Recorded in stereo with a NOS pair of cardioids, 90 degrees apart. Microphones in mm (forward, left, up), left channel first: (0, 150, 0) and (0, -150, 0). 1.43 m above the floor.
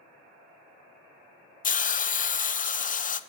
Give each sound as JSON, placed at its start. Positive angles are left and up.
{"t": 1.6, "sound": "a hiss", "azimuth_deg": 25, "distance_m": 0.6}